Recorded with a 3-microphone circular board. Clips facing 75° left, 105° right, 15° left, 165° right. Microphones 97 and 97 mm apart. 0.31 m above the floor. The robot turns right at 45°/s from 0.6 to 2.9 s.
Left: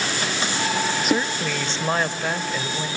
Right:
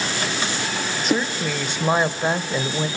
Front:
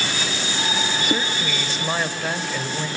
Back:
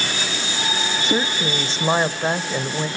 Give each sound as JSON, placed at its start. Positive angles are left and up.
{"t": 1.0, "sound": "a woman speaking", "azimuth_deg": 160, "distance_m": 1.1}